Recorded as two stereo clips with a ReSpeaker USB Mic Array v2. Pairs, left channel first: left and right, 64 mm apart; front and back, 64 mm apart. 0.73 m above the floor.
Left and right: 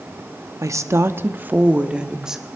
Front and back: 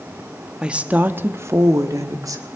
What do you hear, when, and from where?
0.6 s a woman speaking: 105° right, 0.8 m; by 2.5 s 170° right, 1.3 m